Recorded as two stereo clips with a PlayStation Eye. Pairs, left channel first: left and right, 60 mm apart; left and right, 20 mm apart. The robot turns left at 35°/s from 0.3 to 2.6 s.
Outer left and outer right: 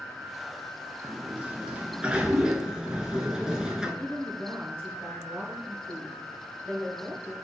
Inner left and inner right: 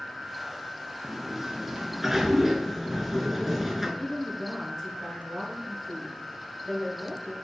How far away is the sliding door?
About 0.5 m.